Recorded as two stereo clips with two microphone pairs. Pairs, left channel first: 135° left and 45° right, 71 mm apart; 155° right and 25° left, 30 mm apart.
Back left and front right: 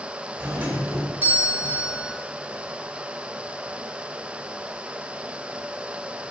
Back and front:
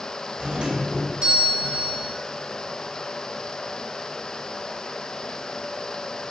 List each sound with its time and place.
0.4 s a doorbell: straight ahead, 1.3 m